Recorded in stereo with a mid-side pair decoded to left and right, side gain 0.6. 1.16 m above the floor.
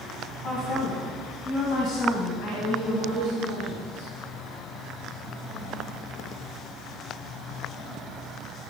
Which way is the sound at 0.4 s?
45° left.